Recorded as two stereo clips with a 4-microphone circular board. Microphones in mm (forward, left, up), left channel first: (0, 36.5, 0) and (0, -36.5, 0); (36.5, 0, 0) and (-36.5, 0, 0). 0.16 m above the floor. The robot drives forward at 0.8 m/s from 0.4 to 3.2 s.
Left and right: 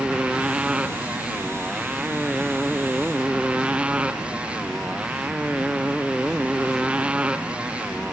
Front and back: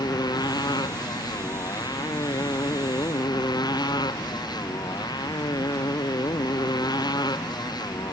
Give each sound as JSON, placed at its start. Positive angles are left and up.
{"t": 0.0, "sound": "a motorcycle", "azimuth_deg": -15}